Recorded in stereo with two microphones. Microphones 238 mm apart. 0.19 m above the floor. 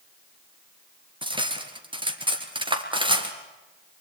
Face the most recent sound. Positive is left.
turn(degrees=-20)  # may be behind; listen again after turning